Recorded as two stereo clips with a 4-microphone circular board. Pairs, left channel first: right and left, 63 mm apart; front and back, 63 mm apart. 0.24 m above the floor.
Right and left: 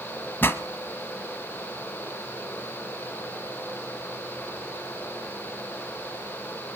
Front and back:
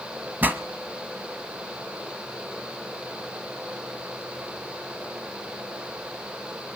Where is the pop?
130° right, 1.0 m.